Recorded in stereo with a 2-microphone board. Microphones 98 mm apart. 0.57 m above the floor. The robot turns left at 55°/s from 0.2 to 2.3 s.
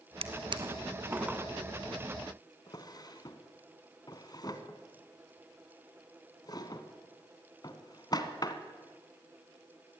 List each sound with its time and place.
0.2 s a drawer: 70° right (ahead or behind), 1.6 m; by 8.5 s 40° left (ahead or behind), 1.6 m